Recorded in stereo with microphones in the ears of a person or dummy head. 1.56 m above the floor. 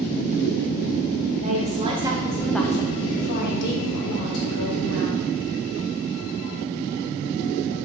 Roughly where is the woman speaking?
Right.